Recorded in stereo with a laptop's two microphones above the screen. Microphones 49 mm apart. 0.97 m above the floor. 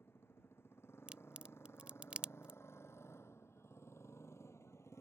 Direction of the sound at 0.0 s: 55° left (ahead or behind).